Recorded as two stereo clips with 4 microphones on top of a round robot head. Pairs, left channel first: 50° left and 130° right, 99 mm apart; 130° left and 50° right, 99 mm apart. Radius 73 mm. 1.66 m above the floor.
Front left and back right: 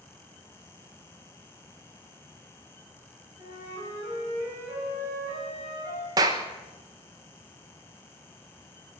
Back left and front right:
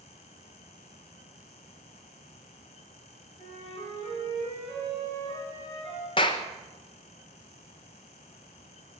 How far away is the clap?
About 1.0 m.